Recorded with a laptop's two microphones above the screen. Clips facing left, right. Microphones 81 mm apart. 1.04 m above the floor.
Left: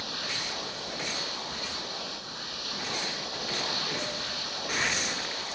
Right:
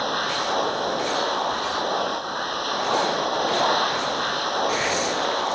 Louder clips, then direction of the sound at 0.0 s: Right 13 dB; 50° right (ahead or behind).